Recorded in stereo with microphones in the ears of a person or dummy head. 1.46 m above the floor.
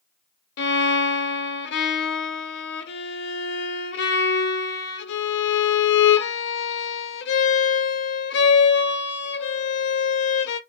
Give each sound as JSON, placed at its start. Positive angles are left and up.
{"t": 0.6, "sound": "a violin", "side_deg": 65, "distance_m": 0.7}